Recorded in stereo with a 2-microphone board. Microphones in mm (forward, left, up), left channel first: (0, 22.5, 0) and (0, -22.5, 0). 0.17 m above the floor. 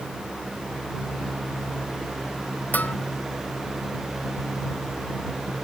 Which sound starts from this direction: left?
A bell, at 2.7 s.